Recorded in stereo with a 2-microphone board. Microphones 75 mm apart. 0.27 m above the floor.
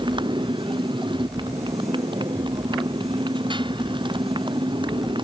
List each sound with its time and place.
0.0 s a motorcycle: 85° right